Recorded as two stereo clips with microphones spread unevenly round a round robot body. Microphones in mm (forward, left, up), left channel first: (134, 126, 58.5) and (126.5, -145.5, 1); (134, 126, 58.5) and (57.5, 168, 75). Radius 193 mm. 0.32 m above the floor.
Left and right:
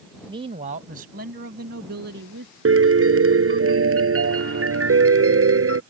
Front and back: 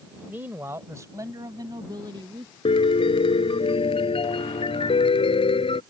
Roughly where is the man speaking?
Behind right.